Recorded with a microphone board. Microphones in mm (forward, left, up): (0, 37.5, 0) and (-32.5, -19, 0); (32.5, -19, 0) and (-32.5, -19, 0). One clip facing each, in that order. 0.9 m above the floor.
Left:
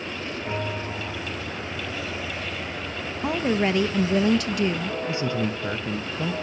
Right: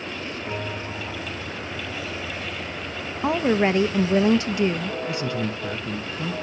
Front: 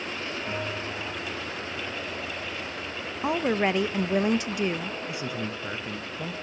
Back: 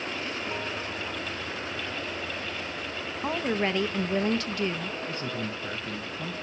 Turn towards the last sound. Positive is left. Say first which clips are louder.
# left 2 dB, even
turn(degrees=60)